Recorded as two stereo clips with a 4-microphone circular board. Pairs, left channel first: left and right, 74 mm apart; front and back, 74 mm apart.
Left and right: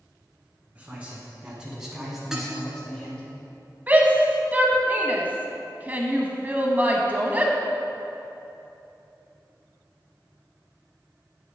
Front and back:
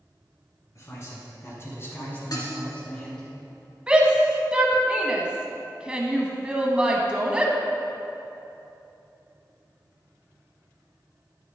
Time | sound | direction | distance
0.8 | a man speaking | 25° right | 2.5 m
2.3 | dishes clattering | 10° right | 1.4 m
3.9 | a shout | 120° right | 1.0 m